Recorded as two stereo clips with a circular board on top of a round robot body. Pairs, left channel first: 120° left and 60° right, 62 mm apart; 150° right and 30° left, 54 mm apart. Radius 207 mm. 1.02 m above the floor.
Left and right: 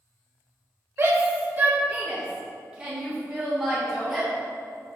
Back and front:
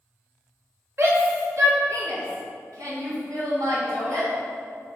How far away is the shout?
About 1.6 m.